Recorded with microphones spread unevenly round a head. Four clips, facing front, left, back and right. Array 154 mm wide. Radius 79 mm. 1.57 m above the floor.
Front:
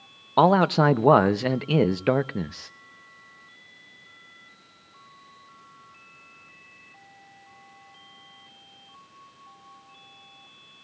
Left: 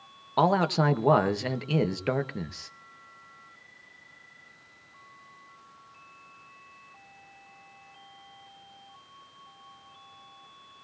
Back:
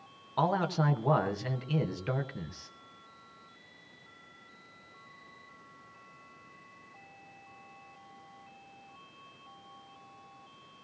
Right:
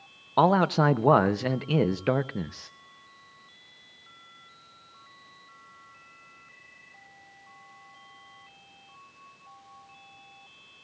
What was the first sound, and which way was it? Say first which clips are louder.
A man speaking: right 2 dB, front 11 dB; 10° right.